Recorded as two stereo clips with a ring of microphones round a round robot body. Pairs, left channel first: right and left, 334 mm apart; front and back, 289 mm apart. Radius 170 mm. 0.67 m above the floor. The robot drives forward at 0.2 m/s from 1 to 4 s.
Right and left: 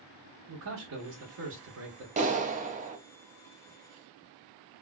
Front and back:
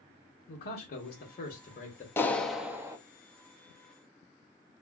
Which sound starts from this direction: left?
A clap, at 2.2 s.